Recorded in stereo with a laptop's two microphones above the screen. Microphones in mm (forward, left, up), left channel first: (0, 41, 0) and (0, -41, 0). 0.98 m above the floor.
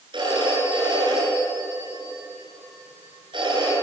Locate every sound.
0.1 s a phone ringing: 85° right, 10 m